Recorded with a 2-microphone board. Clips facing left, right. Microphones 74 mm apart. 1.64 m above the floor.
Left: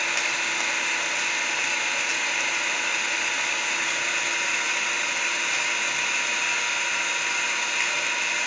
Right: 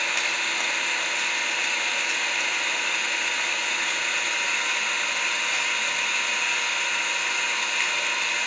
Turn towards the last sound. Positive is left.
turn(degrees=0)  # may be behind; listen again after turning